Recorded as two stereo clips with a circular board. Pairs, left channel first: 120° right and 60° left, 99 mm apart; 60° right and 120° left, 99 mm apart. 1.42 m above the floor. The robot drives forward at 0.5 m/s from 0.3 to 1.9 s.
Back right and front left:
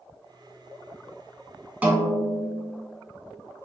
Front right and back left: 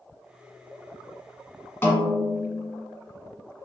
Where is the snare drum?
5° right, 0.7 m.